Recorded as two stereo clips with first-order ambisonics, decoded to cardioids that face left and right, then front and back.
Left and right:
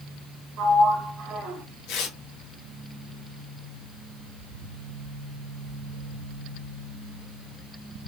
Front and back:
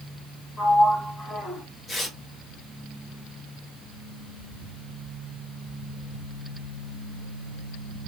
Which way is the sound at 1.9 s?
75° left.